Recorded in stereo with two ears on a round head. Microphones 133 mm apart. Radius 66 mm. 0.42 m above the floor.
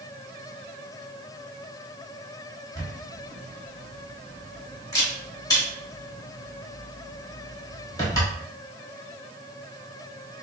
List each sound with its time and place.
2.8 s a camera shutter: 25° left (ahead or behind), 2 m